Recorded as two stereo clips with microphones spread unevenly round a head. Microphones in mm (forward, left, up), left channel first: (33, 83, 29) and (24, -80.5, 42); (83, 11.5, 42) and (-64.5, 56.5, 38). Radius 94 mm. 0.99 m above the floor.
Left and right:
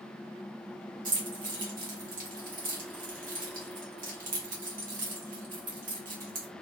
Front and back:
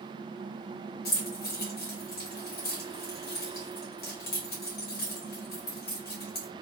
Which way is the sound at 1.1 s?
55° right.